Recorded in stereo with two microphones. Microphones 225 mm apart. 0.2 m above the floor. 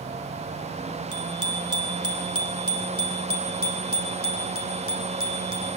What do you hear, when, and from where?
1.1 s a bicycle bell: 70° left (ahead or behind), 4 m; by 5.7 s 65° left (ahead or behind), 6.5 m